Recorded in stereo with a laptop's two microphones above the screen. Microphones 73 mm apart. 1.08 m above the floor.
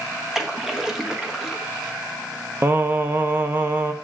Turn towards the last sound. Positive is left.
turn(degrees=-30)  # may be behind; listen again after turning